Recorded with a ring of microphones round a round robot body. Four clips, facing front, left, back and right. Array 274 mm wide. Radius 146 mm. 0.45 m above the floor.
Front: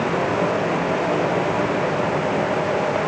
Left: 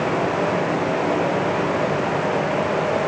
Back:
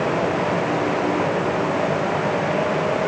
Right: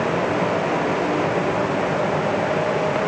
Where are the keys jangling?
I don't hear keys jangling.